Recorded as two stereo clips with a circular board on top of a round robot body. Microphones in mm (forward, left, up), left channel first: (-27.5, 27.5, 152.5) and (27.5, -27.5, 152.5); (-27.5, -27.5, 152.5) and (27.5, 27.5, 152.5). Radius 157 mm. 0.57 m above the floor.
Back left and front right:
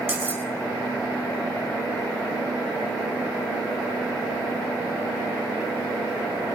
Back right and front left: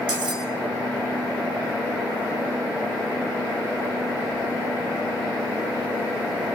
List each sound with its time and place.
0.1 s cutlery clinking: 15° left, 3.5 m